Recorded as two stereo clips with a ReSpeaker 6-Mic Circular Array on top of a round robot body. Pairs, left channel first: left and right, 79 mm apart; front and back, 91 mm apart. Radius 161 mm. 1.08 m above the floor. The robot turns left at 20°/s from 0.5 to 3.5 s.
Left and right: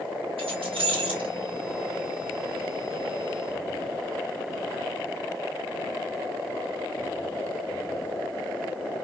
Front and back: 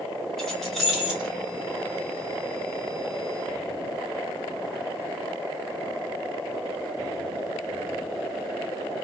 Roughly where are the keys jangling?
Right.